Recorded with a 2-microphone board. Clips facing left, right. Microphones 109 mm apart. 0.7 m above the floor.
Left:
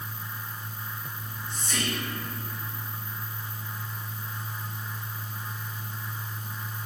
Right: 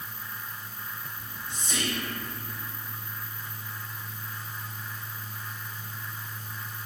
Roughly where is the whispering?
Centre.